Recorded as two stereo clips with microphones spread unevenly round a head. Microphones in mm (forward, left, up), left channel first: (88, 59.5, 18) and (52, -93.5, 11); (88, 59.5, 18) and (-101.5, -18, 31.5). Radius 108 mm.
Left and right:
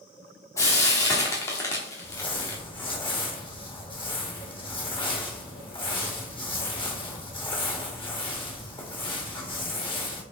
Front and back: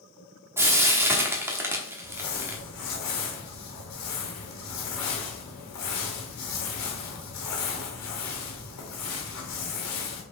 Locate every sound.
0.6 s frying: 135° left, 1.0 m
2.0 s crumpling: 20° left, 1.8 m